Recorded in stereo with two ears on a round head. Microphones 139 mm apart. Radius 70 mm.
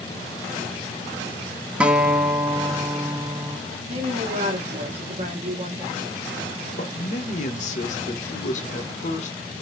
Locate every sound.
1.8 s a guitar: 10° right (ahead or behind), 0.6 m
3.9 s a woman speaking: 40° right (ahead or behind), 1.4 m
6.8 s a man speaking: 50° left (ahead or behind), 1.4 m